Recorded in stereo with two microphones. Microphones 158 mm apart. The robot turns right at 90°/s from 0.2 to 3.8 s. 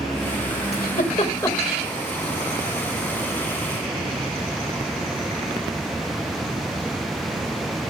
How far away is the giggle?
About 1.8 m.